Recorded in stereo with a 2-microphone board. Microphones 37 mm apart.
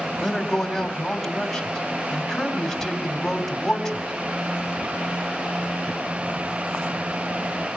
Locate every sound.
0.2 s a man speaking: 5° left (ahead or behind), 2.5 m